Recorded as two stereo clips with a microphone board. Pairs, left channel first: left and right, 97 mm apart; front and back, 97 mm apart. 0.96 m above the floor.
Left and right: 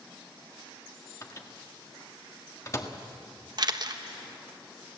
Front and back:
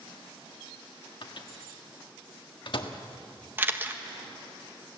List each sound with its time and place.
1.2 s a microwave: 35° left, 1.5 m
3.6 s a camera shutter: 115° right, 1.1 m